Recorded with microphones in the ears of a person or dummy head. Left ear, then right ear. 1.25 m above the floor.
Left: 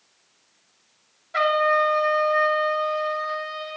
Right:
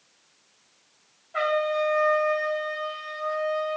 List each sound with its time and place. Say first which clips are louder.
1.3 s a trumpet: left 5 dB; 75° left (ahead or behind), 2.5 m